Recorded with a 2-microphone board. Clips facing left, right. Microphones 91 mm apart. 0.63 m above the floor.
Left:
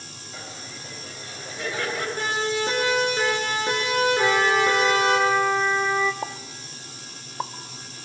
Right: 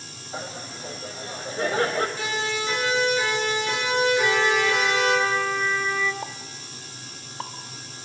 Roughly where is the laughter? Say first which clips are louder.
Right 6 dB; right.